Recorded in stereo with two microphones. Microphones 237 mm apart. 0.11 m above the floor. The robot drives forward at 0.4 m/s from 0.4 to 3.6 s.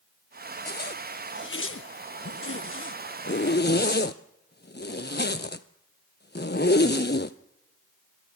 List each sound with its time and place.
0.7 s a zipper: 40° left (ahead or behind), 0.9 m; by 7.4 s 45° left (ahead or behind), 0.9 m